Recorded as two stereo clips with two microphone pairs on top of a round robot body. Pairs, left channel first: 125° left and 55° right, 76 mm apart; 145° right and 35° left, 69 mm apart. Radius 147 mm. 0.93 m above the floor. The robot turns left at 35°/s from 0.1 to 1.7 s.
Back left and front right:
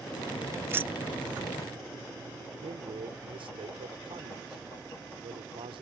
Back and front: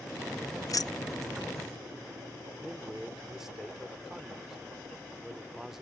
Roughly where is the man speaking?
Ahead right.